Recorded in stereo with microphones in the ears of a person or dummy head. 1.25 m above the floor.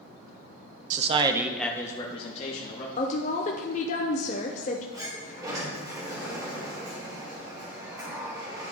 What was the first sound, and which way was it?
A man speaking, 45° right (ahead or behind).